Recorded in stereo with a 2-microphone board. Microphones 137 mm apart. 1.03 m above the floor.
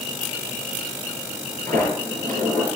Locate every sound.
1.7 s a sliding door: 80° right, 6 m